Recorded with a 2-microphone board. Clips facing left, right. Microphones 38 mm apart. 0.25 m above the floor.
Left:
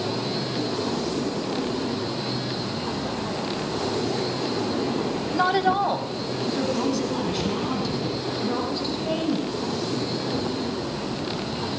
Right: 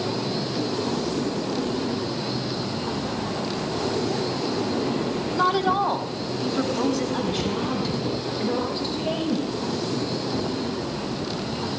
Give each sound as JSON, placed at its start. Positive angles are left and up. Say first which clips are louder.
{"t": 5.3, "sound": "a woman speaking", "louder": "even", "side_deg": 15, "distance_m": 1.1}